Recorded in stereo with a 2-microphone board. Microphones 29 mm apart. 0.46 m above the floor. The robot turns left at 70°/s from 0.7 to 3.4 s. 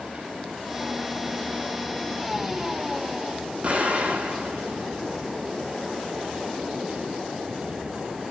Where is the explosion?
40° right (ahead or behind), 6.5 m.